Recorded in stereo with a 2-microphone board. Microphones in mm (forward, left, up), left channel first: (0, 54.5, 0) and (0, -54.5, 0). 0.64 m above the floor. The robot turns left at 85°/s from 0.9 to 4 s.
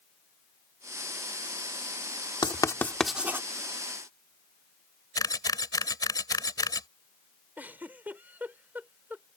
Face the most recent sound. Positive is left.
turn(degrees=-15)  # may be behind; listen again after turning